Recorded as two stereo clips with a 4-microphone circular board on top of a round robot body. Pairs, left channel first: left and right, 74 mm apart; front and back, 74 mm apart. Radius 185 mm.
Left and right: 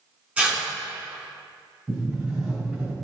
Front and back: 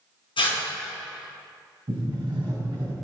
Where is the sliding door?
170° right, 3 m.